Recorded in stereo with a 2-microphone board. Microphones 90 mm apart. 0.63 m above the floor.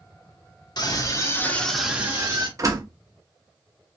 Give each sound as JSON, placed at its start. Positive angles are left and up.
{"t": 0.8, "sound": "a scream", "side_deg": 50, "distance_m": 1.0}
{"t": 2.6, "sound": "a door slam", "side_deg": -40, "distance_m": 0.6}